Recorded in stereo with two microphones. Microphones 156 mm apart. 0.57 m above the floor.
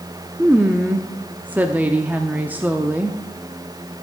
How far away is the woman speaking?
About 0.7 m.